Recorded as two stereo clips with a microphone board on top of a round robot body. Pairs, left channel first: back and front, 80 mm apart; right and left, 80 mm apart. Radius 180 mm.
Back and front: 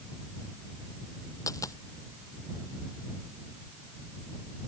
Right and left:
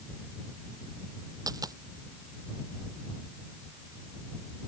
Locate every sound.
1.5 s a dropped coin: 130° left